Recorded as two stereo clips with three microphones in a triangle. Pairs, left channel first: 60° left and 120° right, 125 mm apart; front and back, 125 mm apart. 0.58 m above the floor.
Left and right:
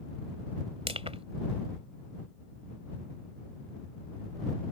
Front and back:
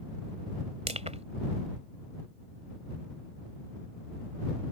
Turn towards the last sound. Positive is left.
turn(degrees=-155)